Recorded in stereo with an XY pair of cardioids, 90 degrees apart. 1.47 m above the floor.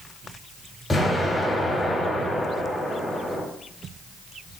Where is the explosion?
30° left, 1.8 m.